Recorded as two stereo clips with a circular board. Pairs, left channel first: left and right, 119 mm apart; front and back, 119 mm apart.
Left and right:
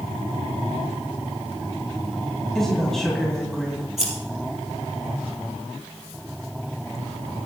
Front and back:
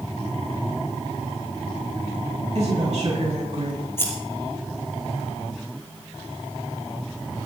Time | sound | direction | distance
2.5 | a woman speaking | 175° left | 2.5 m
4.0 | scissors | 70° right | 5 m